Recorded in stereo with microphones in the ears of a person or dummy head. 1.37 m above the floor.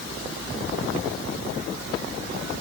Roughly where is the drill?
No drill in this recording.